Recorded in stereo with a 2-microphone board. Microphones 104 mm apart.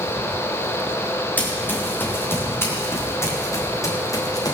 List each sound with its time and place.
1.4 s running footsteps: 15° left (ahead or behind), 5 m; by 4.5 s 35° left (ahead or behind), 3.5 m